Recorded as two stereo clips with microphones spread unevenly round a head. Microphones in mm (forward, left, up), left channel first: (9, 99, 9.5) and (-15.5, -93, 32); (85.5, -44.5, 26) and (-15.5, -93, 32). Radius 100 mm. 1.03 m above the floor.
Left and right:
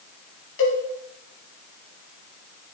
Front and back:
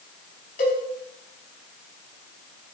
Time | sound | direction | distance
0.6 | a cowbell | 50° left | 4.5 m